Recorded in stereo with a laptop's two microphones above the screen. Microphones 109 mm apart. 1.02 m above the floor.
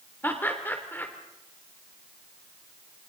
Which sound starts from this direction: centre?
Laughter, at 0.2 s.